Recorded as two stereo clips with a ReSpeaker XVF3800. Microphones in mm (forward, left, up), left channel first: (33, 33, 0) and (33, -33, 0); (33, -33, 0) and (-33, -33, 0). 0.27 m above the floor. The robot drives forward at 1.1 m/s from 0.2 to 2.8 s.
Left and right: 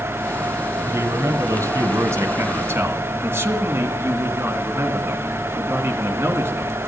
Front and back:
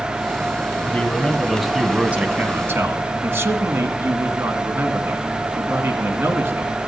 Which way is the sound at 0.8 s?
60° right.